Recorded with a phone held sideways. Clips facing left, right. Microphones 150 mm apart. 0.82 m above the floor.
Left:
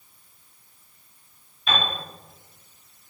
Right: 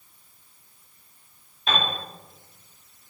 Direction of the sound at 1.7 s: 45° right (ahead or behind).